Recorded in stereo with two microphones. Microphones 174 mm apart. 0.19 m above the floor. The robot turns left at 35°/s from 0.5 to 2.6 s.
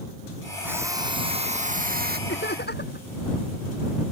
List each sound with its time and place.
0.6 s a drill: 10° right; by 2.2 s 65° right
2.3 s laughter: 80° left; by 3.1 s 70° left (ahead or behind)